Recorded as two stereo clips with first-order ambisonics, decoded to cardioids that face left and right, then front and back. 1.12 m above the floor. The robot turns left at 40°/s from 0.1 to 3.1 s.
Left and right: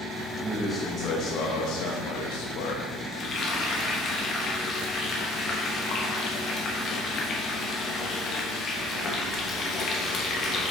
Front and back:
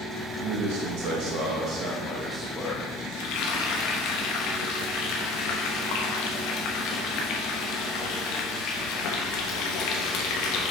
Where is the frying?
30° left, 1.2 m.